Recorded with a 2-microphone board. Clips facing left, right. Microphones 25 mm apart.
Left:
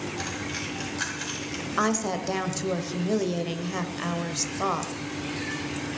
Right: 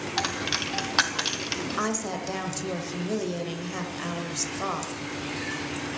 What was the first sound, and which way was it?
A dropped coin, 75° right (ahead or behind).